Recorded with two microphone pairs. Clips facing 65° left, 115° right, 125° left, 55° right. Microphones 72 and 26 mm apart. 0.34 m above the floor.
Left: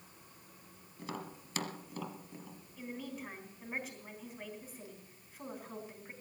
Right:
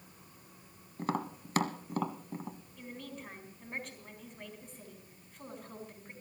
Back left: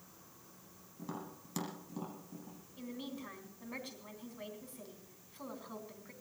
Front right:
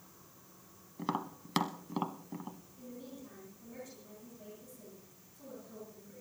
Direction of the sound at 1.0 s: 75° right.